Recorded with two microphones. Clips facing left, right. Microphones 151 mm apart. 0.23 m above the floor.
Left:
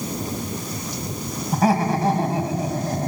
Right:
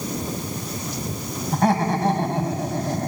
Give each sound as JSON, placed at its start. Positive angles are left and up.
{"t": 1.5, "sound": "laughter", "side_deg": 0, "distance_m": 1.8}